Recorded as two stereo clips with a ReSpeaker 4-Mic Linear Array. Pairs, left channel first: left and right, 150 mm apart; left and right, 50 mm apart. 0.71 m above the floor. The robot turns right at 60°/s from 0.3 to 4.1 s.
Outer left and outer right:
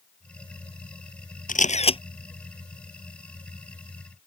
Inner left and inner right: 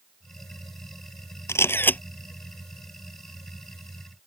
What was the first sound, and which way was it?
A camera shutter, 110° left.